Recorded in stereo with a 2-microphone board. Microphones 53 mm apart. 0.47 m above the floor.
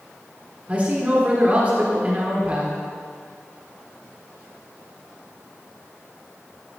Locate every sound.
0.7 s a man speaking: 30° right (ahead or behind), 1.5 m